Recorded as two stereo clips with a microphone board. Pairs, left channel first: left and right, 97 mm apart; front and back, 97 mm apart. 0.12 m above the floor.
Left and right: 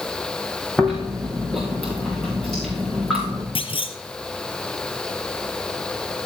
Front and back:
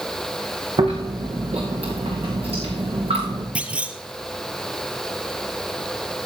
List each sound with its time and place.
0.8 s chewing: 175° left, 5.5 m
3.5 s a clunk: 105° left, 0.9 m